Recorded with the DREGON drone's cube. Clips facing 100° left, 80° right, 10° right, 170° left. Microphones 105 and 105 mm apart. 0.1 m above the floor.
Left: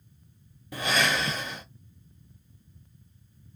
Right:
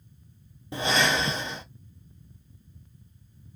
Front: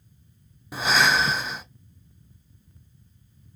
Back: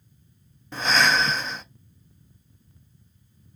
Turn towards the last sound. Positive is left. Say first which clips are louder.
# right 2 dB, even
turn(degrees=-85)